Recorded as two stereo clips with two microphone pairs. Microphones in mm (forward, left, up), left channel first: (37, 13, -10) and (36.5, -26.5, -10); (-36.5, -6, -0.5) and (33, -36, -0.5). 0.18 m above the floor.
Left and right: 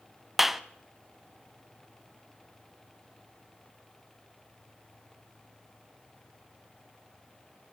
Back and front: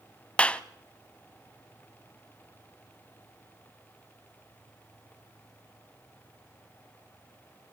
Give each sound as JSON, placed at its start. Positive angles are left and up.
{"t": 0.4, "sound": "a clap", "azimuth_deg": -165, "distance_m": 0.8}